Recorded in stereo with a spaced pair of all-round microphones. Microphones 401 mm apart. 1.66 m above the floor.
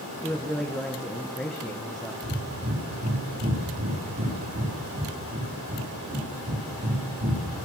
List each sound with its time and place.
0.2 s a man speaking: centre (ahead or behind), 2.0 m
2.2 s breathing: 35° right (ahead or behind), 5 m